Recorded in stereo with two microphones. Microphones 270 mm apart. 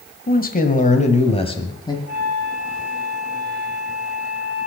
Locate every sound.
0.3 s a man speaking: 35° left (ahead or behind), 1.8 m; by 2.0 s 15° left (ahead or behind), 2 m
2.1 s a flute: 65° left (ahead or behind), 3 m